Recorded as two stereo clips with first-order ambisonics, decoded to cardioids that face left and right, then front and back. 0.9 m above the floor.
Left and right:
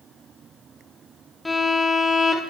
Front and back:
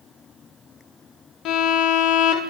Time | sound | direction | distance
1.4 | a violin | 10° left | 0.5 m